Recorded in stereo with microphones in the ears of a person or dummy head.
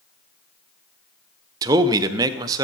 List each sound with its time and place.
1.6 s a man speaking: 20° right (ahead or behind), 0.6 m